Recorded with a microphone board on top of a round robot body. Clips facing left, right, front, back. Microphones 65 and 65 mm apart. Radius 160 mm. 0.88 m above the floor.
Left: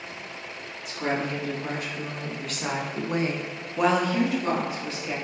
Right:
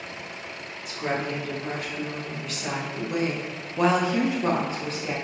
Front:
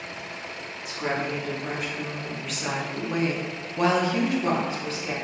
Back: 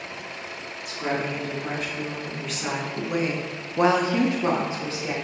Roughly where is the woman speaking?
Left.